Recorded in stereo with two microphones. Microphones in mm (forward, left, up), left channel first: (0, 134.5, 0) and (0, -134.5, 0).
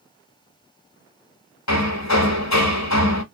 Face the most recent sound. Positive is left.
turn(degrees=75)  # may be behind; listen again after turning